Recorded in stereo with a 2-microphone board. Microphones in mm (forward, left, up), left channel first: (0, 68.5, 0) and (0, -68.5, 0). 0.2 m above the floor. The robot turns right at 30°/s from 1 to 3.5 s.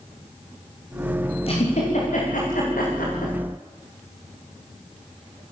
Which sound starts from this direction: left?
A giggle, at 1.4 s.